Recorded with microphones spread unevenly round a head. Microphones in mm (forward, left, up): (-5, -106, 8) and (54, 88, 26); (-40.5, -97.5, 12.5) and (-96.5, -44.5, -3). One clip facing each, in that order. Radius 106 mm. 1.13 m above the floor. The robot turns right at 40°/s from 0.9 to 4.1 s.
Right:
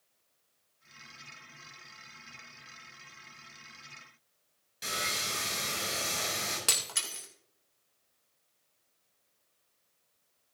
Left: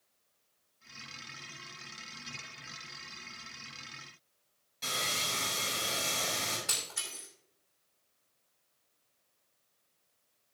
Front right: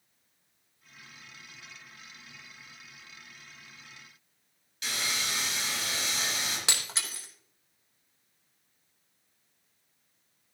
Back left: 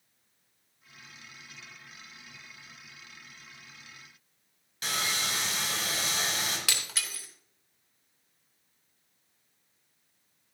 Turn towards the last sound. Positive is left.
turn(degrees=-105)